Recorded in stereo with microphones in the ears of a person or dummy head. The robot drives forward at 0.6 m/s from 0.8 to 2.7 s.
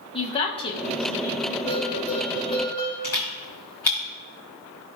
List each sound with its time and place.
0.1 s a woman speaking: 25° left (ahead or behind), 1.0 m; by 1.6 s 15° left (ahead or behind), 1.4 m
1.7 s a bell: 30° left (ahead or behind), 3 m; by 2.9 s 25° left (ahead or behind), 3.5 m
3.0 s a camera shutter: 5° left (ahead or behind), 2 m